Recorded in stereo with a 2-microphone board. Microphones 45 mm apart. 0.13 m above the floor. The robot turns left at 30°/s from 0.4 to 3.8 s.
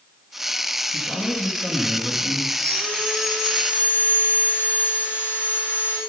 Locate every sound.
0.9 s a man speaking: 55° left, 3 m; by 2.4 s 10° left, 3 m
2.5 s sawing: 165° left, 6 m; by 6.0 s 125° left, 6 m